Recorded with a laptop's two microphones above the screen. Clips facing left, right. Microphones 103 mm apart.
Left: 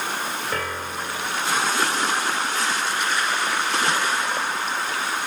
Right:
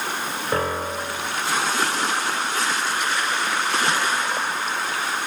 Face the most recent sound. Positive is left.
turn(degrees=-30)  # may be behind; listen again after turning